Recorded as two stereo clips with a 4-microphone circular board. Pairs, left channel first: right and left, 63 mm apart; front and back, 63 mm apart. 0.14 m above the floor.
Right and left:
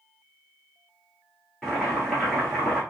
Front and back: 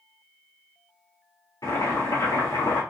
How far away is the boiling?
About 1.7 m.